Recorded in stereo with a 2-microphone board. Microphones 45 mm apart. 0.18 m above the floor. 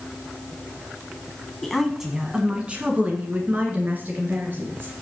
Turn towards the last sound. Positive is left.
turn(degrees=-50)  # may be behind; listen again after turning